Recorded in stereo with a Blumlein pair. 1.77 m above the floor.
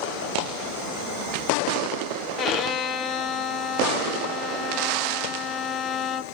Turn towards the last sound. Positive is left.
turn(degrees=30)